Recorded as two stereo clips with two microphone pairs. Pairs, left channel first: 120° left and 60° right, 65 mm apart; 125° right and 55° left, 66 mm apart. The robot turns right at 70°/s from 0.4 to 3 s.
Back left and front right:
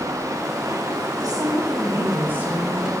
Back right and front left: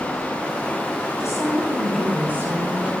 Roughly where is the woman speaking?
Right.